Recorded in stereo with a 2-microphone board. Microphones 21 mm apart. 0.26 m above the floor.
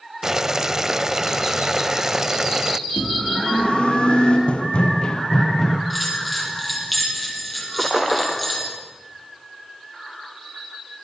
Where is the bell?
5° right (ahead or behind), 7.5 m.